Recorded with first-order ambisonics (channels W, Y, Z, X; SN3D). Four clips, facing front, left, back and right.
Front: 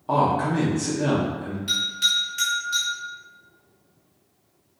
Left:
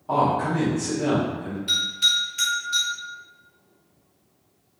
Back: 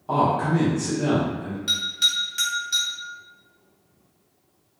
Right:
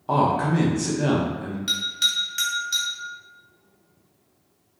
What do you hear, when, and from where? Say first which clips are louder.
0.1 s a man speaking: right 1 dB, even; 70° right, 0.7 m
1.7 s a bell: left 2 dB, even; 115° right, 1.6 m